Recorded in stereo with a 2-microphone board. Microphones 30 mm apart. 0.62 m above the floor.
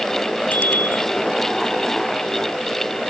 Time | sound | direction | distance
0.5 | a bicycle bell | 85° left | ?